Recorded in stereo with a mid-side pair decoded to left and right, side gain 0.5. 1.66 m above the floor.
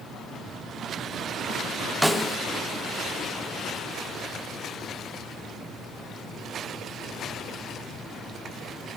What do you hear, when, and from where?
2.0 s a snare drum: straight ahead, 0.7 m